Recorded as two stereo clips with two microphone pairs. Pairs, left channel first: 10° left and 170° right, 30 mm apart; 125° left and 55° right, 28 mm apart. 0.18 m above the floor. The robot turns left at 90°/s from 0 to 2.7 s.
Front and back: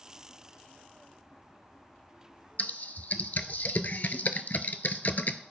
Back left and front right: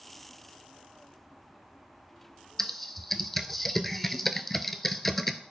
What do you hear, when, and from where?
2.6 s typing on a keyboard: 50° left, 0.5 m; by 5.4 s 40° left, 0.5 m